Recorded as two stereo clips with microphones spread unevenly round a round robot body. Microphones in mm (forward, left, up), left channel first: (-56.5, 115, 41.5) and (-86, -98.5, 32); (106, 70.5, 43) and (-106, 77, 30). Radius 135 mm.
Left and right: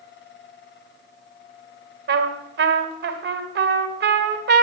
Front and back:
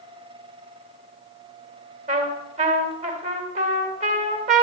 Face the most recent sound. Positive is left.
turn(degrees=-125)